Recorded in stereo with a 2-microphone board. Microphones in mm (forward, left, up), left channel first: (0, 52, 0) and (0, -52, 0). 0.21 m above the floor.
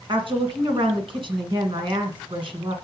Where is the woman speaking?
55° right (ahead or behind), 1.9 m.